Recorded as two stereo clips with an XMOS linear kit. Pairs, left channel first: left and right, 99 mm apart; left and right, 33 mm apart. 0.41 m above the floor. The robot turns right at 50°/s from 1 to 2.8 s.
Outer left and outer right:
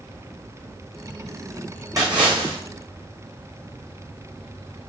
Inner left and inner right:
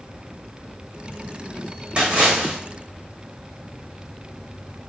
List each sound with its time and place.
2.0 s a splash: 140° right, 7.5 m; by 2.6 s 110° right, 7.5 m